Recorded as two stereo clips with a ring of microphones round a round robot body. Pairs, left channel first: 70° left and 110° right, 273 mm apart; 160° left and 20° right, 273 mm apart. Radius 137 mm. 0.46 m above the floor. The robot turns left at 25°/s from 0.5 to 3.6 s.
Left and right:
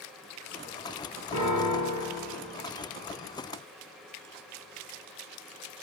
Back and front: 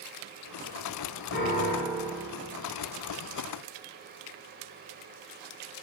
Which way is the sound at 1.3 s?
110° left.